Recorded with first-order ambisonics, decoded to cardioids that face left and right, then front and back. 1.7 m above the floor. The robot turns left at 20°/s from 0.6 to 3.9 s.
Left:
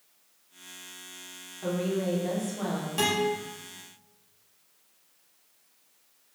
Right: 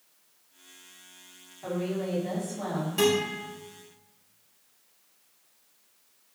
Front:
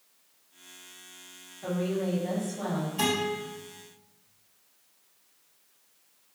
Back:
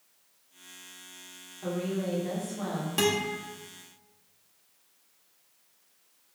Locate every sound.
1.6 s a woman speaking: 115° left, 1.9 m; by 2.9 s 90° left, 1.9 m
3.0 s a guitar: 170° left, 1.2 m; by 3.4 s 160° left, 1.2 m